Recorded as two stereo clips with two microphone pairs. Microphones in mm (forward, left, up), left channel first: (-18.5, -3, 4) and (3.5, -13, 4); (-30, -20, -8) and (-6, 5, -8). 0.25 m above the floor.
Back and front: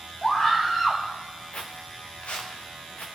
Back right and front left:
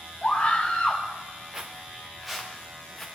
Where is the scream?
165° right, 2.0 m.